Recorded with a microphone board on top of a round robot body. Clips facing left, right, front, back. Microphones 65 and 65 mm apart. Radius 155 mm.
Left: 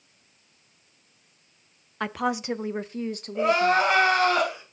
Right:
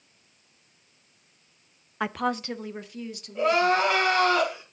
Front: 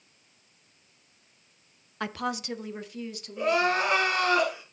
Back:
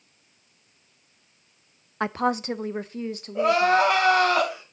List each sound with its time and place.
2.0 s a woman speaking: 165° right, 0.6 m; by 3.9 s 125° left, 1.2 m
3.4 s crying: 165° left, 3.5 m